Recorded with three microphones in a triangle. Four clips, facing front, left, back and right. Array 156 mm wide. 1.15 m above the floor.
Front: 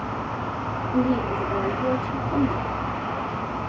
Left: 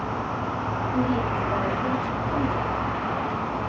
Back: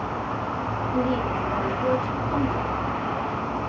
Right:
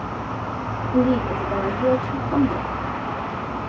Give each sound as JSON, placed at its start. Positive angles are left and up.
{"t": 0.9, "sound": "a woman speaking", "azimuth_deg": -75, "distance_m": 3.5}